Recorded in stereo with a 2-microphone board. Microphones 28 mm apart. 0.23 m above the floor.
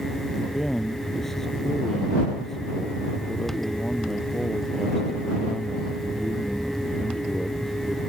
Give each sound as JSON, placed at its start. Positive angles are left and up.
{"t": 0.4, "sound": "a man speaking", "side_deg": 10}